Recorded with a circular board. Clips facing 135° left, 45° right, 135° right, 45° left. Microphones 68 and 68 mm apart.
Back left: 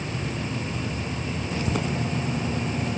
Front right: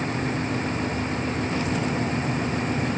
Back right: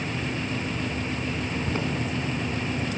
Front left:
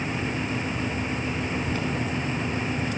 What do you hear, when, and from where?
1.7 s footsteps: 165° left, 4 m